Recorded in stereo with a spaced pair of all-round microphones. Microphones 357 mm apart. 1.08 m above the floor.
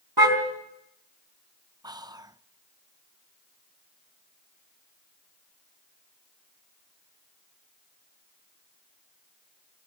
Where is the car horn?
80° right, 3.5 m.